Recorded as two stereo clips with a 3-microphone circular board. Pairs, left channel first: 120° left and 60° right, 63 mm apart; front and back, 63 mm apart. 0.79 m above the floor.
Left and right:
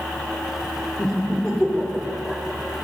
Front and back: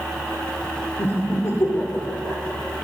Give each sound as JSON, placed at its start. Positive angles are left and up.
{"t": 1.0, "sound": "laughter", "azimuth_deg": 45, "distance_m": 1.8}